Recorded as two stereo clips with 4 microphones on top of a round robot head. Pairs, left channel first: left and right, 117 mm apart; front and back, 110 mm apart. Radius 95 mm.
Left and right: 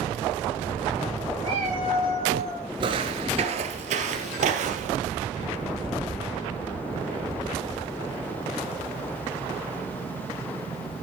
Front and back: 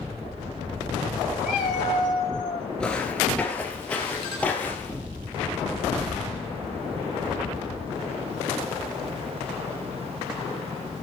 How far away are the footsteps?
About 1.8 m.